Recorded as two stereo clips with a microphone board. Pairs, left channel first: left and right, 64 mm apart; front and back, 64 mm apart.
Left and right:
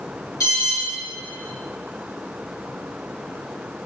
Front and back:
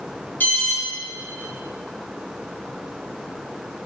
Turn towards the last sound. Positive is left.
turn(degrees=60)